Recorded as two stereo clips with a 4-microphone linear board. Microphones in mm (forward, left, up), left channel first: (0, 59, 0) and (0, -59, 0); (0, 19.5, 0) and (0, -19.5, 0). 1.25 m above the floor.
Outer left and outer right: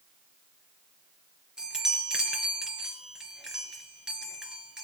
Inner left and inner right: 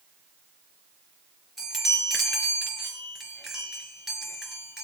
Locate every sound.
1.6 s a chime: 5° right (ahead or behind), 4.5 m